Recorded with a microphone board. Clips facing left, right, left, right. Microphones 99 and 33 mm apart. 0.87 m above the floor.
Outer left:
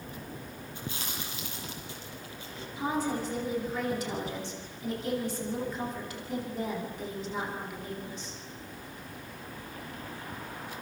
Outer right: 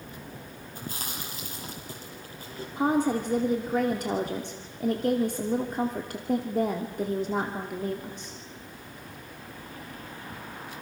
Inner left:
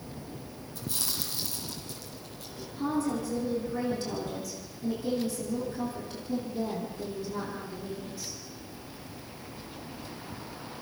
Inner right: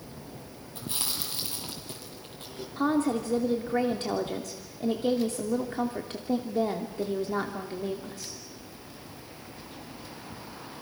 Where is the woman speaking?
55° right (ahead or behind), 2.5 m.